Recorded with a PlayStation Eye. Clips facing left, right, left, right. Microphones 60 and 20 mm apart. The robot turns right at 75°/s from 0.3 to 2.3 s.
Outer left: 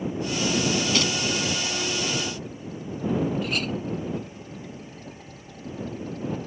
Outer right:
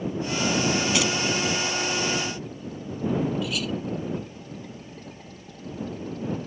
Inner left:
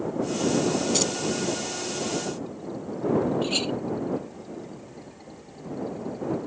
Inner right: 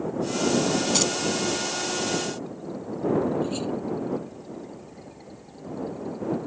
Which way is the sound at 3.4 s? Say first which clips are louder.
Outer left 1 dB, inner left 2 dB; 45° left (ahead or behind).